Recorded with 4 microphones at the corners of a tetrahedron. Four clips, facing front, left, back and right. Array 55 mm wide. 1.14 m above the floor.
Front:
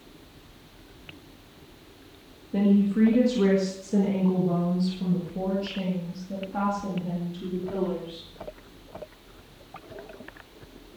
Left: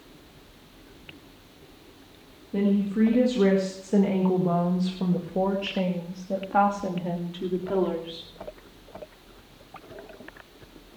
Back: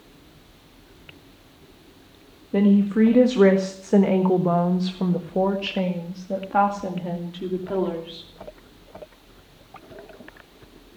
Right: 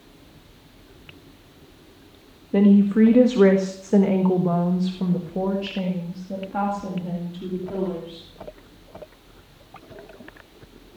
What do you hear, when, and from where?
2.5 s a woman speaking: 125° right, 2 m; by 8.3 s 135° left, 3.5 m